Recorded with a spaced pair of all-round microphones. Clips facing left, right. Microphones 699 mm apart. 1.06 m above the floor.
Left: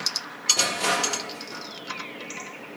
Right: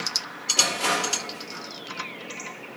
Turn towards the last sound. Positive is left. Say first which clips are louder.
# even
turn(degrees=70)  # may be behind; listen again after turning